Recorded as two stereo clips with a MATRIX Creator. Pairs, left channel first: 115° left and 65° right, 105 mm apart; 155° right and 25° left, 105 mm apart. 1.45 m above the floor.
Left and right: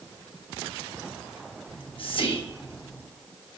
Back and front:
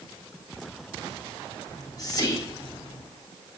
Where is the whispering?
150° left, 1.5 m.